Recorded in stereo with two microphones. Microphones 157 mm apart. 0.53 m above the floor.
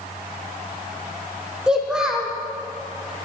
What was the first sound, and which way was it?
A child speaking, 5° right (ahead or behind).